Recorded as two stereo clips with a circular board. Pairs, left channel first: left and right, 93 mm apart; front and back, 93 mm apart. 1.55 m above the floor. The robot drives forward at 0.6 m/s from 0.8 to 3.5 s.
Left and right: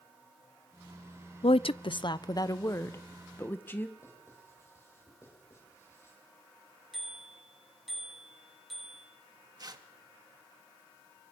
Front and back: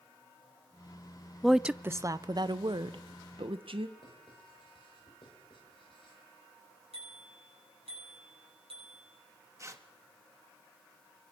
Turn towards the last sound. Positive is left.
turn(degrees=-125)